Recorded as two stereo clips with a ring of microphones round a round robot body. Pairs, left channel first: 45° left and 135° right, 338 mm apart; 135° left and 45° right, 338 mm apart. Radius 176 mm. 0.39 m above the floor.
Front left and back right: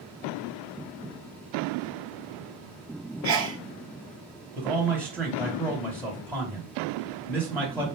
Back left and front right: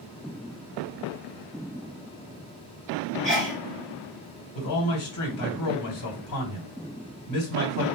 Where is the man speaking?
130° left, 1.8 m.